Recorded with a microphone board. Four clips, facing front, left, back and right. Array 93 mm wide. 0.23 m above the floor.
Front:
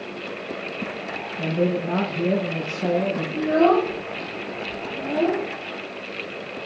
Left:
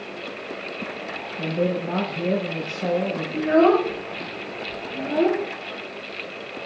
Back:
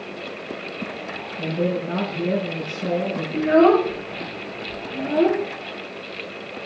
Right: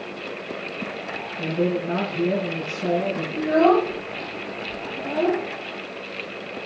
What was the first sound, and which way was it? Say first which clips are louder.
A man speaking: right 1 dB, front 1 dB; 45° left.